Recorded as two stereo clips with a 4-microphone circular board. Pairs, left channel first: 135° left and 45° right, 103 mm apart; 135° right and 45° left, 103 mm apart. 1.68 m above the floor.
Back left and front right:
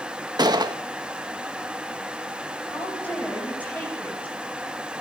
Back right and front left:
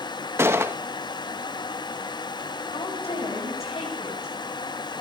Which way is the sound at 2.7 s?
150° right.